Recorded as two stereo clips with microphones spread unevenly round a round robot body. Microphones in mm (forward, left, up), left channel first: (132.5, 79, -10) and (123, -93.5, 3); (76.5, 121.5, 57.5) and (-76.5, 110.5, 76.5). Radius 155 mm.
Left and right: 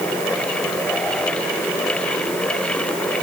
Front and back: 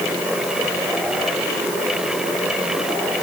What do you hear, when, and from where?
Only background noise.